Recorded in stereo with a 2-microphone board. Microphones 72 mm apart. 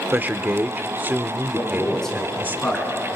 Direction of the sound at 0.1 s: 25° right (ahead or behind).